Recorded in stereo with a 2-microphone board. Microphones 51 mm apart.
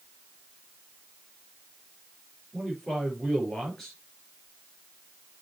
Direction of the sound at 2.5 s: 10° left (ahead or behind).